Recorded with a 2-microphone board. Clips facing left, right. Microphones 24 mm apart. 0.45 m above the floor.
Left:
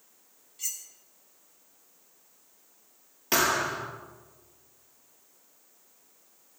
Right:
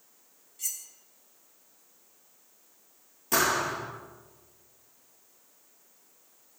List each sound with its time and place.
0.6 s cutlery clinking: 20° left (ahead or behind), 1.4 m
3.3 s a thud: 45° left (ahead or behind), 4 m